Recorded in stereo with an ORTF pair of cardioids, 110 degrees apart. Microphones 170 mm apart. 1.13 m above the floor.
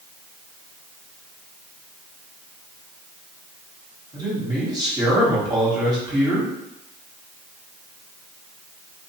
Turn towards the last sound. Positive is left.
turn(degrees=-25)